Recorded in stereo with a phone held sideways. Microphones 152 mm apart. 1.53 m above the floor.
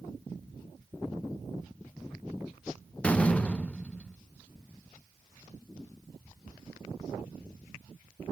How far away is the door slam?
About 0.8 m.